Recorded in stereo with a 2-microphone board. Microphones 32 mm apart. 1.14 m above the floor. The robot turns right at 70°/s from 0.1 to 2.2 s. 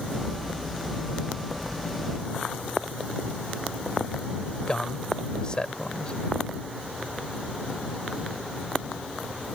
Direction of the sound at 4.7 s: 25° left (ahead or behind).